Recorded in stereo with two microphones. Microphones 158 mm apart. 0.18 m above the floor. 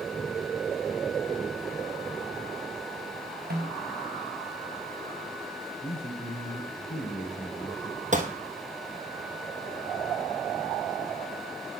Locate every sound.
3.5 s a snare drum: 80° right, 2.5 m
5.8 s a man speaking: 45° left (ahead or behind), 2.5 m
8.1 s a gunshot: 50° right (ahead or behind), 1.3 m